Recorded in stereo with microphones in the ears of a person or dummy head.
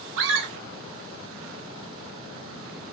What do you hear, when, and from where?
0.2 s a scream: 55° right (ahead or behind), 0.6 m